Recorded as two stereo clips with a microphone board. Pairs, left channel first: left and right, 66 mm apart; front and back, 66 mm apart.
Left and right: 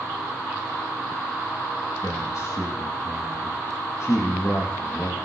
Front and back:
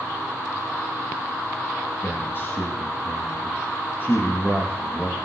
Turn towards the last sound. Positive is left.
turn(degrees=50)